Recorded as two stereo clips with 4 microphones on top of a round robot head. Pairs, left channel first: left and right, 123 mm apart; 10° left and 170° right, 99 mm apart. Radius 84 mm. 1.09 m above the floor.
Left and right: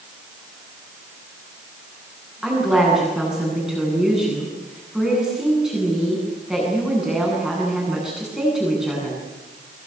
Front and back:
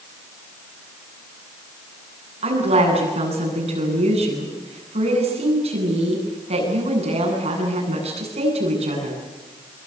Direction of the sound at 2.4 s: 175° right.